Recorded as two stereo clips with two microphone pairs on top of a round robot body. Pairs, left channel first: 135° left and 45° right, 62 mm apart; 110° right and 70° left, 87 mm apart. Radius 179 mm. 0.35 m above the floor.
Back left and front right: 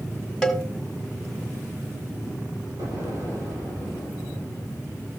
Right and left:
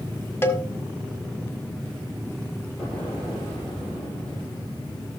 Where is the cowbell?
145° right, 1.7 m.